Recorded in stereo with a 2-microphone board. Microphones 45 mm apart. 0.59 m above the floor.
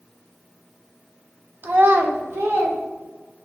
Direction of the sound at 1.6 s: 50° right (ahead or behind).